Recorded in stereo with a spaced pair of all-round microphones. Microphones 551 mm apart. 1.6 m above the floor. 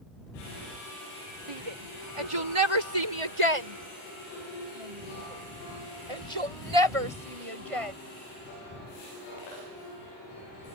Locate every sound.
1.5 s a shout: 65° right (ahead or behind); by 8.0 s 85° right